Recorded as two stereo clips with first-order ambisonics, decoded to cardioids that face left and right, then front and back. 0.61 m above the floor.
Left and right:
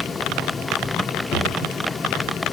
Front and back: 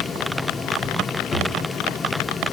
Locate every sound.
1.3 s a drawer: 55° left, 0.7 m